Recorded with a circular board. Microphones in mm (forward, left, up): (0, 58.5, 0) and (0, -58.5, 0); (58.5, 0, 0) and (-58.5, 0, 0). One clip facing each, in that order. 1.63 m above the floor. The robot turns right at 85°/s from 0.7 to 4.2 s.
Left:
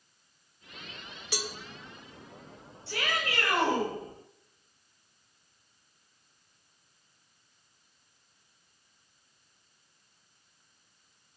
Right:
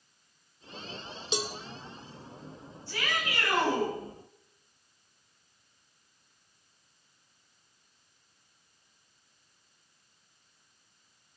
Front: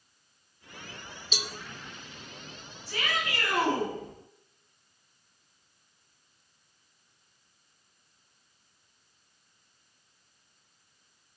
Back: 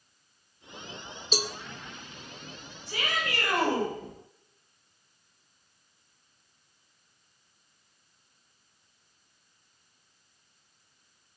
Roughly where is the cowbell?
Behind right.